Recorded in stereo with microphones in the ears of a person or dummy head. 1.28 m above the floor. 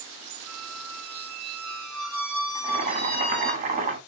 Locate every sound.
0.5 s a squeak: centre (ahead or behind), 1.0 m
2.5 s boiling: 45° right (ahead or behind), 1.0 m